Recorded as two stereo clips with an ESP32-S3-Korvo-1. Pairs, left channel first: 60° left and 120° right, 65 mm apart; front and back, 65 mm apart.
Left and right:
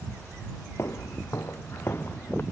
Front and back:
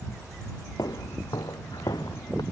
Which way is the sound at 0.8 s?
15° left.